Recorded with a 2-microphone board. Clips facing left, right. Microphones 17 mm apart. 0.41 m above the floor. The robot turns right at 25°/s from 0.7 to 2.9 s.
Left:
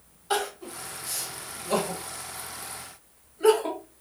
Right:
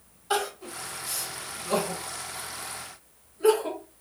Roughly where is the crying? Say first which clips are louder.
Even; centre.